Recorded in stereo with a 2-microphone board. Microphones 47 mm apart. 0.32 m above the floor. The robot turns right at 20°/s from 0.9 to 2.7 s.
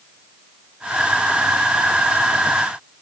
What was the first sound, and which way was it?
Only background noise.